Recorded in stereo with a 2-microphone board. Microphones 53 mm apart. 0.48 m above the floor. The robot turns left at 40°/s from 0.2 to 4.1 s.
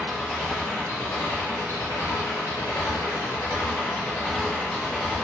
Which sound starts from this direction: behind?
An engine running, at 0.0 s.